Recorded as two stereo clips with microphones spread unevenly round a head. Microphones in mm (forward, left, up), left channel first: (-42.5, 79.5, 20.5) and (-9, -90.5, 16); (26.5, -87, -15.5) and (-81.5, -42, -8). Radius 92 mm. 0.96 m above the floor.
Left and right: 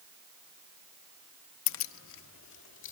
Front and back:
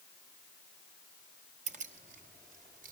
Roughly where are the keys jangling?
Left.